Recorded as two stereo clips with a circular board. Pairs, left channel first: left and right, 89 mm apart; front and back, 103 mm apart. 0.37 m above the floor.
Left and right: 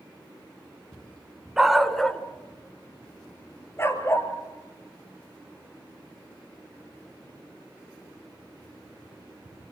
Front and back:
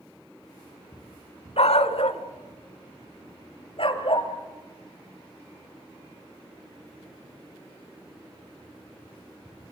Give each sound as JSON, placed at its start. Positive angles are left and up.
{"t": 1.6, "sound": "a dog barking", "azimuth_deg": -5, "distance_m": 1.0}